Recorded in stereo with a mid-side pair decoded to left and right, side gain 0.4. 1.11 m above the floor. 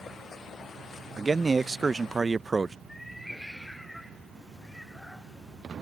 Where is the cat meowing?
10° left.